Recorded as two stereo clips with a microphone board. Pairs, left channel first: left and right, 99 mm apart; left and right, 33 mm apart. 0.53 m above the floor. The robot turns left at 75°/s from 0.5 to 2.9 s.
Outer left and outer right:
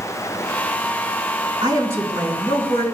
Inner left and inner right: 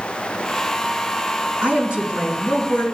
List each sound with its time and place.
1.6 s a woman speaking: 130° right, 4 m; by 2.8 s 140° left, 4 m